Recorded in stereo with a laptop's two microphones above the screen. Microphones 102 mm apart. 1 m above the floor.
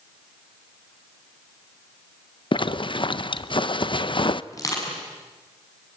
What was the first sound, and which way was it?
A zipper, 50° left (ahead or behind).